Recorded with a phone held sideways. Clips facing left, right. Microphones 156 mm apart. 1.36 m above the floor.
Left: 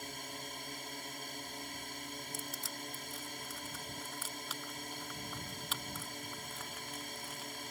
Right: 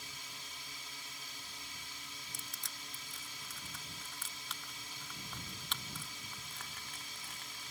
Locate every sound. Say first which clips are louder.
0.0 s a drone: left 9 dB; 55° left (ahead or behind)
2.3 s crushing: left 8 dB; 5° left (ahead or behind)